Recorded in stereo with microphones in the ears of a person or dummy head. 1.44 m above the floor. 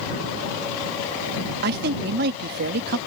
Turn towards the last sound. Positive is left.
turn(degrees=-55)  # may be behind; listen again after turning